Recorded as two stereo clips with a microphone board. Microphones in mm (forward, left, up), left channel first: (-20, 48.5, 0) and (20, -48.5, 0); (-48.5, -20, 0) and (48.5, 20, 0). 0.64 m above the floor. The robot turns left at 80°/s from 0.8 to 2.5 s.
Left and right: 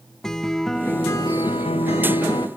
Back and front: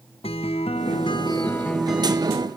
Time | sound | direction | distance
0.2 | a guitar | 165° right | 0.8 m